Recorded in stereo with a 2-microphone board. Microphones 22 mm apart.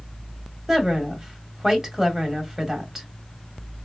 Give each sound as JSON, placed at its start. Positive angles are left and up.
{"t": 0.7, "sound": "a woman speaking", "side_deg": -20, "distance_m": 1.5}